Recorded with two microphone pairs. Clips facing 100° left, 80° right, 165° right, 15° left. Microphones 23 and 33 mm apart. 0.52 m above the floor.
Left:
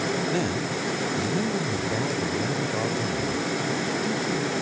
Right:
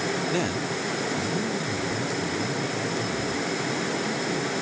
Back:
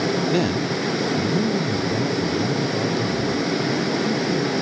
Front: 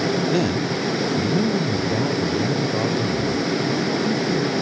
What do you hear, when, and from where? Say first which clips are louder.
0.3 s a man speaking: even, even; 115° right, 0.7 m; by 4.6 s 55° left, 3 m